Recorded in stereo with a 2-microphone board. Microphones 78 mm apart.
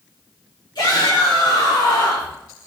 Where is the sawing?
I don't hear sawing.